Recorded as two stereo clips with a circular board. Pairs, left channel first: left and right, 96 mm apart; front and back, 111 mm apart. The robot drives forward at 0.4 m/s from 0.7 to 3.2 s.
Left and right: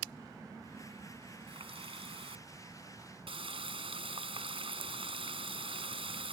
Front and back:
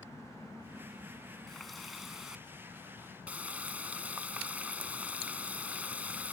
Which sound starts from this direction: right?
A running tap, at 1.5 s.